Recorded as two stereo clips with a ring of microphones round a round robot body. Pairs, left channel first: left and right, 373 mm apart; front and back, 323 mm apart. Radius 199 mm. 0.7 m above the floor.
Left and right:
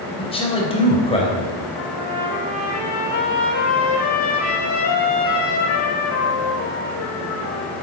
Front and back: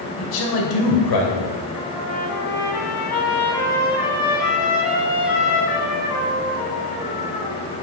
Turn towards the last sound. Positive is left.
turn(degrees=20)